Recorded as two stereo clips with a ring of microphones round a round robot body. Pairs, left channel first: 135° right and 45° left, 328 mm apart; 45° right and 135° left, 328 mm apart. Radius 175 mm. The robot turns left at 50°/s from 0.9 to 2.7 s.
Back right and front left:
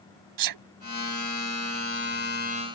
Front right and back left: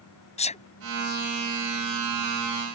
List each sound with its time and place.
0.4 s a sneeze: 25° left